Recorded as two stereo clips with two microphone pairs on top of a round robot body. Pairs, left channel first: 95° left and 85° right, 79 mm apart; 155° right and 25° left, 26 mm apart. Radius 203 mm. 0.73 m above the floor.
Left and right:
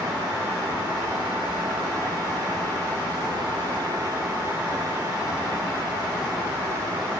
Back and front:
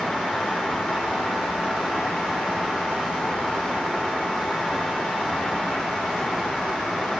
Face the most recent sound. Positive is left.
No sound to turn to.